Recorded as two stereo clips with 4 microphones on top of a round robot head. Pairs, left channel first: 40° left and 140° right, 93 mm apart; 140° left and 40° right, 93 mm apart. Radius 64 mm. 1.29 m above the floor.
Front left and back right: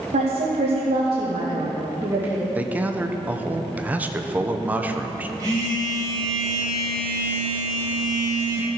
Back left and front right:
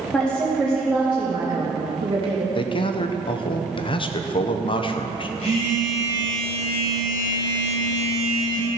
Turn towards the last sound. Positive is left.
turn(degrees=165)